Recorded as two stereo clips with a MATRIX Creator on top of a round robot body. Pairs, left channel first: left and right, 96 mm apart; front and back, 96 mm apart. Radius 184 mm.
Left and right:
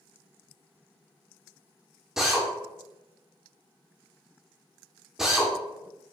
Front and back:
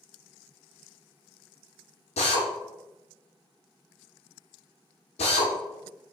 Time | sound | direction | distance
2.2 | a drill | 5° right | 0.6 m